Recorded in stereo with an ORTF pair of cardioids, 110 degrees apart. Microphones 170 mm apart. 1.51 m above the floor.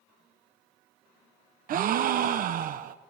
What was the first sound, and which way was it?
A gasp, 55° right.